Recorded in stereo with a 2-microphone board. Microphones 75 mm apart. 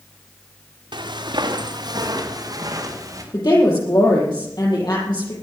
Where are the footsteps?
85° right, 2.5 m; by 3.2 s 45° right (ahead or behind), 4.5 m.